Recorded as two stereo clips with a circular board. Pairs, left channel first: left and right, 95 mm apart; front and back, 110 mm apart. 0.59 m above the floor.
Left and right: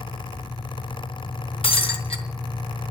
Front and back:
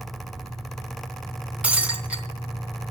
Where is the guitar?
I don't hear a guitar.